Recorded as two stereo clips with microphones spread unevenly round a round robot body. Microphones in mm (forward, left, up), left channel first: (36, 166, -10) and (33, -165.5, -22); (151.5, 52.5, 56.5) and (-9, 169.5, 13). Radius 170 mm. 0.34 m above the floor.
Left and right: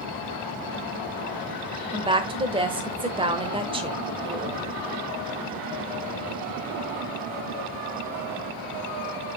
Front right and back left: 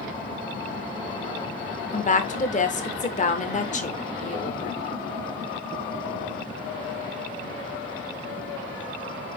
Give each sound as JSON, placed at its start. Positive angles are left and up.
{"t": 1.9, "sound": "a woman speaking", "azimuth_deg": -45, "distance_m": 0.9}